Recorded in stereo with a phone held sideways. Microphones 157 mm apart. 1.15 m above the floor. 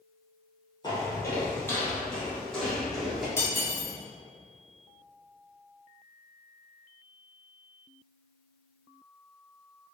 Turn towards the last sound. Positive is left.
turn(degrees=20)  # may be behind; listen again after turning